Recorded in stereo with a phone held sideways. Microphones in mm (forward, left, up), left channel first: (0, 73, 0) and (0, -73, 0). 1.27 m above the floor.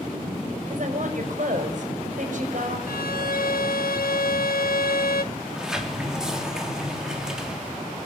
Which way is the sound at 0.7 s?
60° right (ahead or behind).